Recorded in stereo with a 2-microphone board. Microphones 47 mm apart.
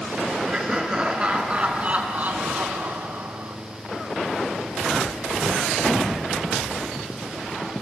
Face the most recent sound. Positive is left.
turn(degrees=-60)  # may be behind; listen again after turning